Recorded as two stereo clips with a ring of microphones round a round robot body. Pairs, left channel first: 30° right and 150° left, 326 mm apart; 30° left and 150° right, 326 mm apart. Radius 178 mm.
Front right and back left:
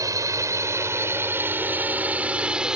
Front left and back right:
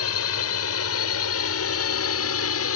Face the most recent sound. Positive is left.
turn(degrees=65)